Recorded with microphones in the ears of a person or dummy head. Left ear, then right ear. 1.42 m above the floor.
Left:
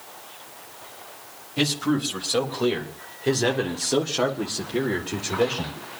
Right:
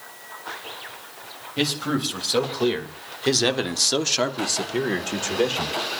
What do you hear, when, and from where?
1.6 s a man speaking: 5° right (ahead or behind), 3.5 m; by 5.8 s 45° right (ahead or behind), 2.5 m